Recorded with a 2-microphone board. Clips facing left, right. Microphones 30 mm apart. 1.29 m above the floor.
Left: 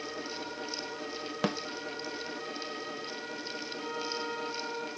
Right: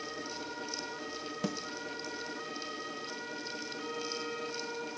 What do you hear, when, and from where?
1.4 s a snare drum: 45° left (ahead or behind), 0.6 m
3.8 s a flute: 25° left (ahead or behind), 6 m